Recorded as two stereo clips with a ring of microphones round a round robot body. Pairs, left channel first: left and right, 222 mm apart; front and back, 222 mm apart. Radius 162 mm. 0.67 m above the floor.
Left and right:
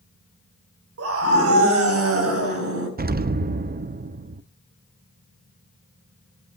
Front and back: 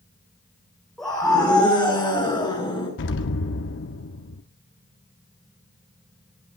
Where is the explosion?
40° right, 0.7 m.